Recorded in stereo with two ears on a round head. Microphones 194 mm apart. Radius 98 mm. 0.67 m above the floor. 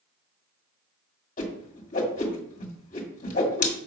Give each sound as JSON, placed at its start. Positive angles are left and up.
{"t": 1.4, "sound": "a whoosh", "side_deg": 35, "distance_m": 1.9}